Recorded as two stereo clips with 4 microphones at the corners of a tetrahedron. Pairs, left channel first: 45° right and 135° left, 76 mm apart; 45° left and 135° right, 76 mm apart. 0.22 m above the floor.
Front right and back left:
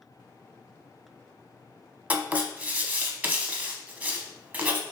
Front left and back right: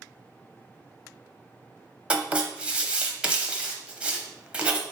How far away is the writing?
About 0.6 m.